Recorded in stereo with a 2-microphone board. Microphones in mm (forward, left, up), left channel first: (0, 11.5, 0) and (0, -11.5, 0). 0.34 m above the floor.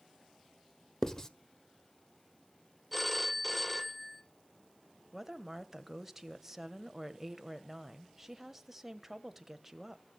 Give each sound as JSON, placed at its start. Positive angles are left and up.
{"t": 1.0, "sound": "writing", "side_deg": 20, "distance_m": 1.0}
{"t": 2.9, "sound": "a phone ringing", "side_deg": 0, "distance_m": 0.9}
{"t": 5.1, "sound": "a woman speaking", "side_deg": -10, "distance_m": 1.3}